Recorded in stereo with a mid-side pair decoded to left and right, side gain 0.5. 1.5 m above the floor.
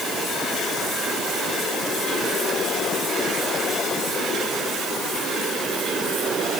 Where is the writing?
No writing in this recording.